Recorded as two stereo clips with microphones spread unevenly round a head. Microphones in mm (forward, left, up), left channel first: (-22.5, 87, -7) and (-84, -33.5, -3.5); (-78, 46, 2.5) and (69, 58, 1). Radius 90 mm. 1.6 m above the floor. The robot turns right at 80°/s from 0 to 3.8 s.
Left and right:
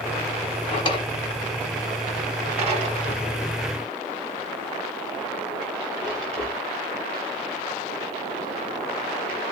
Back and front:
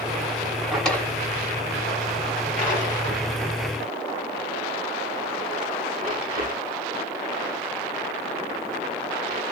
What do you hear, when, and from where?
0.7 s a drawer: 90° left, 1.8 m; by 9.4 s 25° right, 1.8 m